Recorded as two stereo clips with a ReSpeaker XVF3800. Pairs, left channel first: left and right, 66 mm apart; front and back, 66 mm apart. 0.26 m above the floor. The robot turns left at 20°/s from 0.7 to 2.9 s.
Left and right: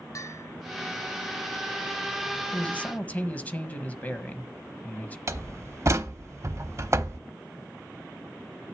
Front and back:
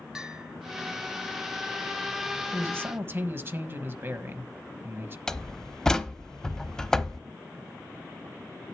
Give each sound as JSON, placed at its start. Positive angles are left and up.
{"t": 0.1, "sound": "a bell", "azimuth_deg": 100, "distance_m": 1.1}
{"t": 2.5, "sound": "a man speaking", "azimuth_deg": 150, "distance_m": 1.3}
{"t": 5.3, "sound": "a door slam", "azimuth_deg": -80, "distance_m": 0.8}